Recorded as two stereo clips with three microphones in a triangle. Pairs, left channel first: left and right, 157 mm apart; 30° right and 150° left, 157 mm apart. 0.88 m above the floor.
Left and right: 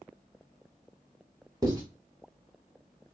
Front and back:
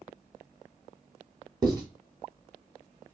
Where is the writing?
150° right, 1.3 m.